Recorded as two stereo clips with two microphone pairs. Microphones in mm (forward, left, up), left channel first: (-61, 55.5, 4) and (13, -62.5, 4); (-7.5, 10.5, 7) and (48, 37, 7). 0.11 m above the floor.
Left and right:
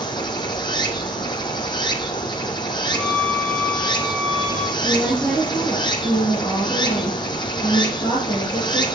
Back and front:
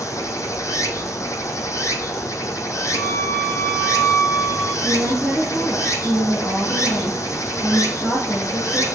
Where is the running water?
Straight behind, 0.7 m.